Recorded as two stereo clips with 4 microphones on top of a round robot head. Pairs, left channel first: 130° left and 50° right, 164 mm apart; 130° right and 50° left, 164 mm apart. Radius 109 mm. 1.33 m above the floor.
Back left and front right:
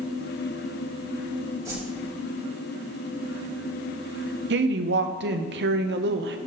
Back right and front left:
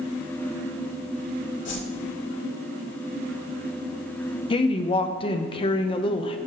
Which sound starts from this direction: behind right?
A whoosh, at 1.6 s.